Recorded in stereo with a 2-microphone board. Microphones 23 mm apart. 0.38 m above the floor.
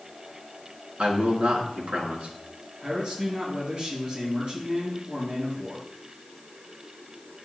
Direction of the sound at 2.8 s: 35° right (ahead or behind).